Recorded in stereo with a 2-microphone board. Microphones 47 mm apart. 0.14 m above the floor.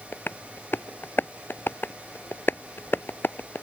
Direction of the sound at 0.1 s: 55° left (ahead or behind).